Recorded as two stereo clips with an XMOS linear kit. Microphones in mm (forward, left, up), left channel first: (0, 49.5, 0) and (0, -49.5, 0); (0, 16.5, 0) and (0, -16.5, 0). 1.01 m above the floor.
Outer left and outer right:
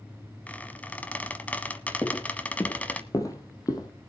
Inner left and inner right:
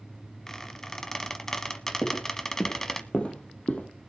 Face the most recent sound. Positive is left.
turn(degrees=40)  # may be behind; listen again after turning